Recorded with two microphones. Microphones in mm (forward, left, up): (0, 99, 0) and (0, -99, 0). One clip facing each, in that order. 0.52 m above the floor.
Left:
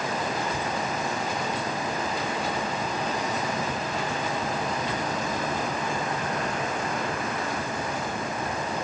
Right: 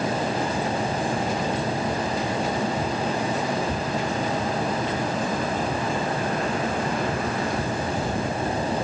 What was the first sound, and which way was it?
Only background noise.